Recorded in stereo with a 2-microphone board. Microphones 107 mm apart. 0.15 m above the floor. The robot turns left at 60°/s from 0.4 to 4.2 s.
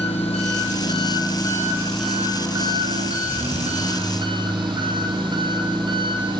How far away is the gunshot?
No gunshot in this recording.